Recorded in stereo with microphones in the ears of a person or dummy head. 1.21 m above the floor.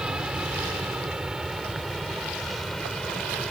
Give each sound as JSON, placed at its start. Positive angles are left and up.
{"t": 0.0, "sound": "an aircraft", "side_deg": -5}